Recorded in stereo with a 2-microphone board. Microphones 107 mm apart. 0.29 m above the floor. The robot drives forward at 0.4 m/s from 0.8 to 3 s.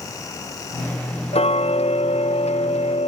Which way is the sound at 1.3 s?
70° left (ahead or behind).